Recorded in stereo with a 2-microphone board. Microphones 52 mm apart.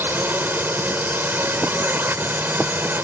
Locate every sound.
0.0 s a drone: 40° right (ahead or behind)